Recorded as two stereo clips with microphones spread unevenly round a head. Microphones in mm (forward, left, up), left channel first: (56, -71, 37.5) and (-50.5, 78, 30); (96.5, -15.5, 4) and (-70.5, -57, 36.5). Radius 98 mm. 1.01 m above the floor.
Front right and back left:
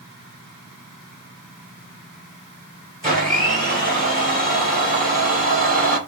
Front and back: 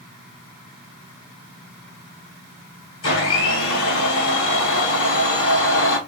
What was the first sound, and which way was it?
A blender, 35° left.